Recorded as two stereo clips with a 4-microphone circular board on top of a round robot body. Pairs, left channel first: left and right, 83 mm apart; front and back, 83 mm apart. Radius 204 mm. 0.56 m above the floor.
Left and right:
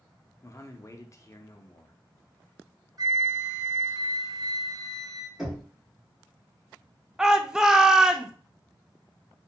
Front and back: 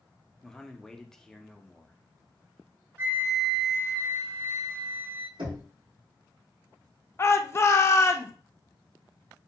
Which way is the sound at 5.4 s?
175° right.